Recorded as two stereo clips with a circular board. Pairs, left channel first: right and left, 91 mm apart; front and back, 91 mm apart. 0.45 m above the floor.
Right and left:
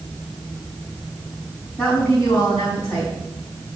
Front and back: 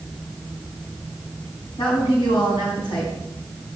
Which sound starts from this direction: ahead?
A woman speaking, at 1.8 s.